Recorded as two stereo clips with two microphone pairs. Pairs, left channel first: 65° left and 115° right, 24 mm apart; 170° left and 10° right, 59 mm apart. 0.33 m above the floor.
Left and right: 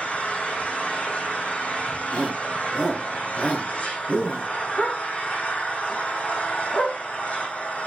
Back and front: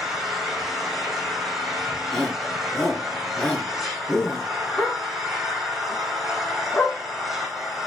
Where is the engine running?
75° left, 3.5 m.